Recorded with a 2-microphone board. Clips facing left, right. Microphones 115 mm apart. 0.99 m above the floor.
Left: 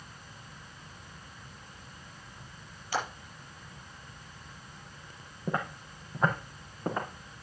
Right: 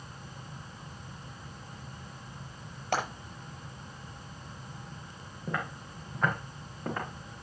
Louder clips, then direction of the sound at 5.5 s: Left 2 dB; 25° left (ahead or behind).